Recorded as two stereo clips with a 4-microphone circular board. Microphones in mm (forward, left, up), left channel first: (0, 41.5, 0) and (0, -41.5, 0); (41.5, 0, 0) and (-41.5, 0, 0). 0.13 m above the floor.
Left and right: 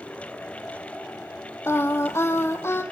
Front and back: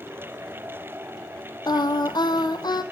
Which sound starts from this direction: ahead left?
Singing, at 1.7 s.